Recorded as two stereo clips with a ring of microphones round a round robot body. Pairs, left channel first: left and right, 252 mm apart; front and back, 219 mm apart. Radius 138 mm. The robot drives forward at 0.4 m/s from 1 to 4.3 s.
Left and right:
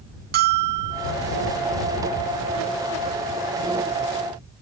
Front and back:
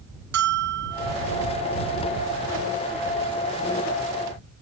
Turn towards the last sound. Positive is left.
turn(degrees=-170)